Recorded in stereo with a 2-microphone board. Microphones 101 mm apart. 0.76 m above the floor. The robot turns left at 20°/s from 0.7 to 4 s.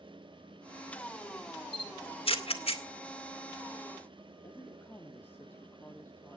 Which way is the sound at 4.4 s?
20° left (ahead or behind).